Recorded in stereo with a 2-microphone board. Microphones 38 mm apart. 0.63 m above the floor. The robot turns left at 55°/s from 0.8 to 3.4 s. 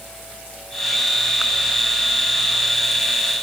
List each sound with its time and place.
Only background noise.